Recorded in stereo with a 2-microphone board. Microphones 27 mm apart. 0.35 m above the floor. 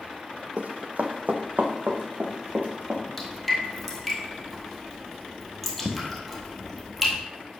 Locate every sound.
0.6 s running footsteps: 60° right (ahead or behind), 0.7 m; by 3.0 s 70° right (ahead or behind), 1.9 m
3.2 s dripping: 5° left (ahead or behind), 1.7 m